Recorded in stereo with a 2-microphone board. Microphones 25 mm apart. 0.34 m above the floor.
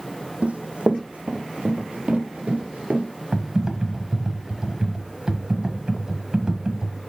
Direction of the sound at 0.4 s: 60° right (ahead or behind).